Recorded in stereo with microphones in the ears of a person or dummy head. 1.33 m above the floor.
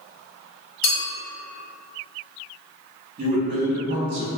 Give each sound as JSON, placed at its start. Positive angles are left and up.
{"t": 0.8, "sound": "a clink", "side_deg": 55, "distance_m": 1.7}
{"t": 3.2, "sound": "a man speaking", "side_deg": -40, "distance_m": 0.6}